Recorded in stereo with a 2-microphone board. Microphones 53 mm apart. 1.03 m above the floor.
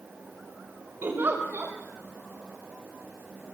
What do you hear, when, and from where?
1.0 s a giggle: 40° right (ahead or behind), 5.5 m